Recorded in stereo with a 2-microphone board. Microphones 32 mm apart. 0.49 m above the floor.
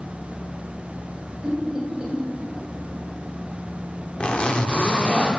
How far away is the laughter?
About 1.9 m.